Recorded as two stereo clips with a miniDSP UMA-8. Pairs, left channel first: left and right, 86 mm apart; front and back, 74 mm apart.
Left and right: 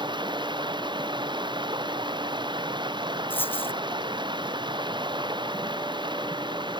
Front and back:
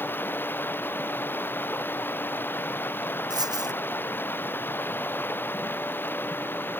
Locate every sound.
0.0 s running water: 65° right
3.3 s a dropped coin: 155° left